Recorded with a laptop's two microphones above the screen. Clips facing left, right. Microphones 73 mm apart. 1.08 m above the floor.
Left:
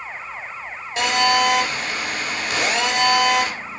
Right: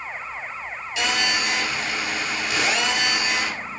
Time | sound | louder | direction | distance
1.0 | a phone buzzing | left 7 dB | 40° left (ahead or behind) | 3.5 m